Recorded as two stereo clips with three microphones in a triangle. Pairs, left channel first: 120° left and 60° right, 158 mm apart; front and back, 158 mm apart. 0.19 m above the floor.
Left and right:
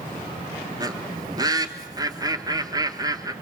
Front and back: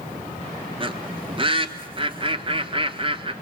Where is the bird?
125° right, 1.1 m.